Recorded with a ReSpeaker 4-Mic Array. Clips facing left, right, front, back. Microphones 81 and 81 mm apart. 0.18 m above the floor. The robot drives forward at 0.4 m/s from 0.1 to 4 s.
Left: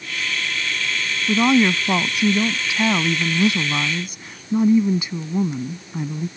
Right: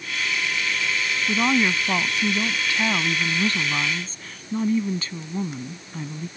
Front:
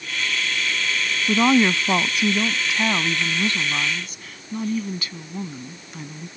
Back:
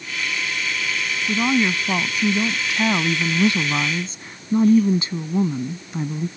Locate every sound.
1.3 s a woman speaking: 25° left; by 6.3 s 150° left